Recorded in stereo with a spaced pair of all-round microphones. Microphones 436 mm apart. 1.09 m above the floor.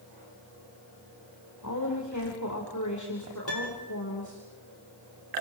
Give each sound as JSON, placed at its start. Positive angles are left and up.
{"t": 1.6, "sound": "a woman speaking", "side_deg": 40, "distance_m": 4.5}
{"t": 3.5, "sound": "a piano", "side_deg": 75, "distance_m": 6.0}